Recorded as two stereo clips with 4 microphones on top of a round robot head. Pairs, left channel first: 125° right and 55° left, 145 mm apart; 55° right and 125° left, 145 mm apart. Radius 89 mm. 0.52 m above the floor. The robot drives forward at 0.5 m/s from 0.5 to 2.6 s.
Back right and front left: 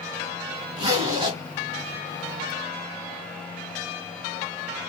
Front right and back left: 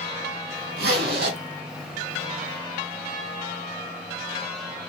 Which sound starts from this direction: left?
A zipper, at 0.8 s.